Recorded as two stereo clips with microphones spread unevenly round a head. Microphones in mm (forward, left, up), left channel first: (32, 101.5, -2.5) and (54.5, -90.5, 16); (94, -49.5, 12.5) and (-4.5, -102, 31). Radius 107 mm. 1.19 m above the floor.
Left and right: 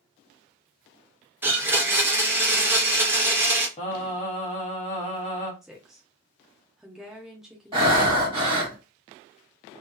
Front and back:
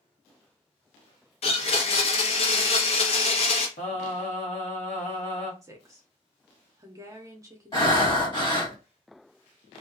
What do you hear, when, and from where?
1.4 s a blender: 5° right, 0.8 m
3.8 s singing: 40° left, 1.0 m
5.6 s a woman speaking: straight behind, 0.5 m
7.7 s breathing: 20° right, 1.6 m